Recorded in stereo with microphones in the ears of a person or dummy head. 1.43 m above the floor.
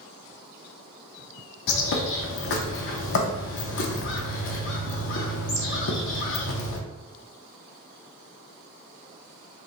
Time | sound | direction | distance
1.7 | a bird | 65° left (ahead or behind) | 0.6 m